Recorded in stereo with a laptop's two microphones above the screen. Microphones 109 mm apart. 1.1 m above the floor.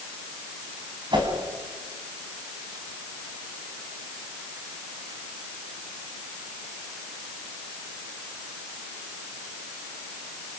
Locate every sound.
1.1 s a whoosh: 45° right (ahead or behind), 4 m